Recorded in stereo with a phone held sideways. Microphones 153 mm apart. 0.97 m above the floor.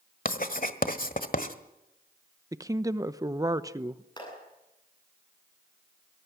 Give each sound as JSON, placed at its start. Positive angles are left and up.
{"t": 0.2, "sound": "writing", "side_deg": 65, "distance_m": 1.4}
{"t": 2.5, "sound": "a woman speaking", "side_deg": -20, "distance_m": 0.8}
{"t": 4.2, "sound": "a clap", "side_deg": 30, "distance_m": 9.5}